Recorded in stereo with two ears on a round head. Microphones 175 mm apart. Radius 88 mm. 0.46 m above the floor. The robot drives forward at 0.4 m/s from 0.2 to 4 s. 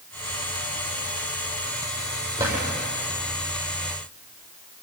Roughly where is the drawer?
Centre.